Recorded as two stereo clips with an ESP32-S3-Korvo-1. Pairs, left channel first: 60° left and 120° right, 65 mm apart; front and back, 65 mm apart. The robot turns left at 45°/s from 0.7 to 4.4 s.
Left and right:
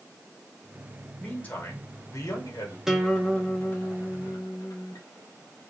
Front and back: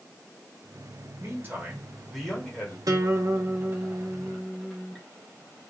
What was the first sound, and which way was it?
A man speaking, 130° left.